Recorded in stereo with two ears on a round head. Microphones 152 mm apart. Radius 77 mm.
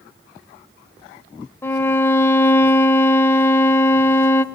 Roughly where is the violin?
Centre.